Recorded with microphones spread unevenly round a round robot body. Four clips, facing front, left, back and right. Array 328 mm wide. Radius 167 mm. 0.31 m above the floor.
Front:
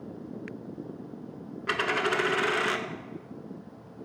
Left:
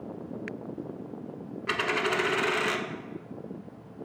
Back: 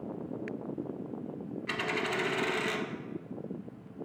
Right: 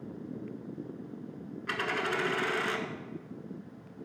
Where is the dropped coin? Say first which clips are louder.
Left 4 dB, front 7 dB; 35° left, 0.8 m.